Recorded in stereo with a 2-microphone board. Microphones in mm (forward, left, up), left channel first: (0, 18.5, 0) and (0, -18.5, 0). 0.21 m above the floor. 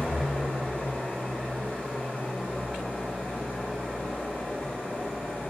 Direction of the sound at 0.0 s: 60° left (ahead or behind).